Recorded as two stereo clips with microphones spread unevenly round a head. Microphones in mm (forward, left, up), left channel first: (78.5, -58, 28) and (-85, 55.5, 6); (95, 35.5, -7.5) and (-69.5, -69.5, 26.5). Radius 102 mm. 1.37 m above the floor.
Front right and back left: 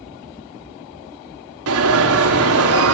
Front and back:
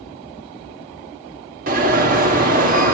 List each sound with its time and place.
1.7 s an alarm: 160° left, 3 m